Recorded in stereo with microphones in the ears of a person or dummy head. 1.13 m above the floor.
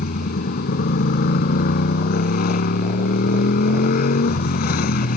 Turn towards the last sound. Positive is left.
turn(degrees=55)  # may be behind; listen again after turning